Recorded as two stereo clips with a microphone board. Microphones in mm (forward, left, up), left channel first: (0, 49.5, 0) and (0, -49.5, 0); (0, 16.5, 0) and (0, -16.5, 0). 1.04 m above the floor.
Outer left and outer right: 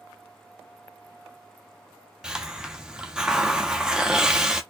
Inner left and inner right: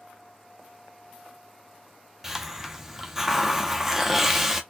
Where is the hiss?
5° right (ahead or behind), 0.5 m.